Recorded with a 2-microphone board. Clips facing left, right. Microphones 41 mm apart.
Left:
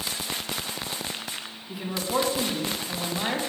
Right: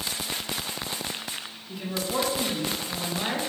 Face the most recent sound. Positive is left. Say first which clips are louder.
# left 2 dB
turn(degrees=10)  # may be behind; listen again after turning